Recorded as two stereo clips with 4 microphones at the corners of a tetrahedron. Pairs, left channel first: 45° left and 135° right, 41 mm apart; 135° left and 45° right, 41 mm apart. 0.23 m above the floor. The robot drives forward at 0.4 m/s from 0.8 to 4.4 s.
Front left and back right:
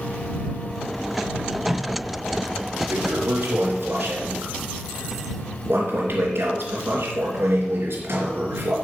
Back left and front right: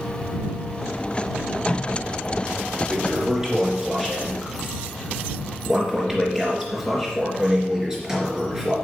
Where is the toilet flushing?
115° right, 3 m; by 8.8 s 125° right, 3.5 m.